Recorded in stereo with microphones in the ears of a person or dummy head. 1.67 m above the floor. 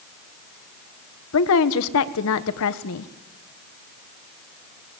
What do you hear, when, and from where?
1.3 s a woman speaking: 70° left (ahead or behind), 1.5 m